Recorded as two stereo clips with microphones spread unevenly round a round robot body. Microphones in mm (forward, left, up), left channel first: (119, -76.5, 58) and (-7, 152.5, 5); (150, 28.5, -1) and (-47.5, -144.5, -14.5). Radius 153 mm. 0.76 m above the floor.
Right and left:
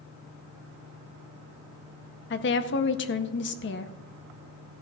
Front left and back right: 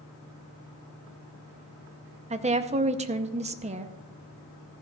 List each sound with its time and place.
2.3 s a woman speaking: 95° right, 0.7 m